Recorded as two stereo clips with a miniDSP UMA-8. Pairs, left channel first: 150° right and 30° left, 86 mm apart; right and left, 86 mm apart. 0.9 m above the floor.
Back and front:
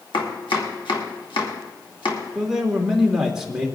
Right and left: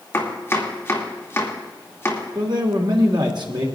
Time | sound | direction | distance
0.1 | chopping | 150° right | 2.5 m
2.4 | a man speaking | 115° left | 2 m